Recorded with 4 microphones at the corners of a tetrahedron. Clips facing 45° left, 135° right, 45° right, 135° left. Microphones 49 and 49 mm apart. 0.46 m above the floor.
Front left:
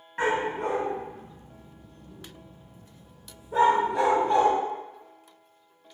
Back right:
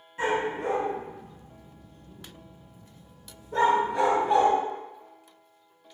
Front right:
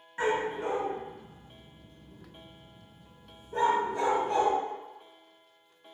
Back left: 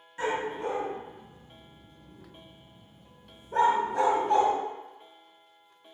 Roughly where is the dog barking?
Ahead.